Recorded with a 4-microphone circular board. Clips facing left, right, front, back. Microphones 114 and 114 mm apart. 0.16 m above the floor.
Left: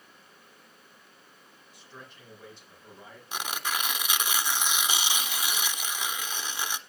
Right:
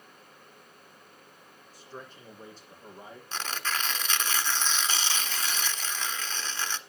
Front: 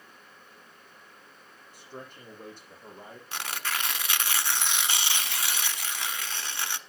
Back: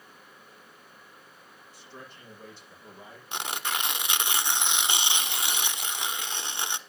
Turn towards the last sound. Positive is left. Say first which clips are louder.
# left 1 dB, back 2 dB
turn(degrees=145)